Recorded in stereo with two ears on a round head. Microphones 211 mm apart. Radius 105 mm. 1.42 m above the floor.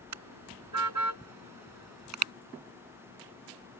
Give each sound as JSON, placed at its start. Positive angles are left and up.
{"t": 0.1, "sound": "a car horn", "side_deg": -80}